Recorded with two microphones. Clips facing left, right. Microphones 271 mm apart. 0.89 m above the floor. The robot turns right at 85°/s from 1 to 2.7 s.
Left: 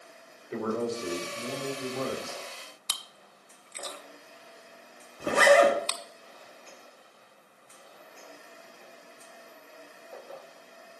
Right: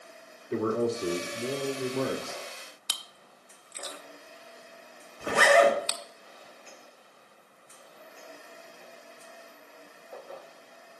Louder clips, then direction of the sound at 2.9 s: Even; 10° right (ahead or behind).